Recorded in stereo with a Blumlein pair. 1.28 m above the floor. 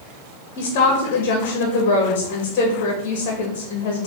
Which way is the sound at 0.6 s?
45° left.